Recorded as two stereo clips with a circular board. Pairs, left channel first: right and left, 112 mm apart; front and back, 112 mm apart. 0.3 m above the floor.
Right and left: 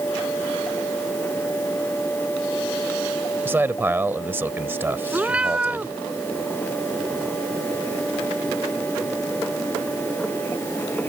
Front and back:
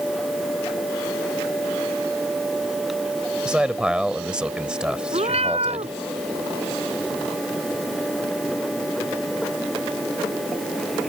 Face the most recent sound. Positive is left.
turn(degrees=170)